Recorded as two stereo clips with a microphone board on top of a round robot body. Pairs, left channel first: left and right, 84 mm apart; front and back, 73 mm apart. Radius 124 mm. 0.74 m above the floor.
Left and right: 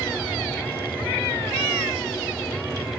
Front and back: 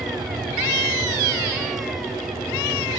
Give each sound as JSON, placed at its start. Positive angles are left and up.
{"t": 0.0, "sound": "an aircraft", "azimuth_deg": 175}